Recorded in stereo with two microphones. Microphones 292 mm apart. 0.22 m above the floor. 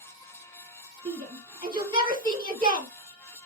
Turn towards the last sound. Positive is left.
turn(degrees=-15)  # may be behind; listen again after turning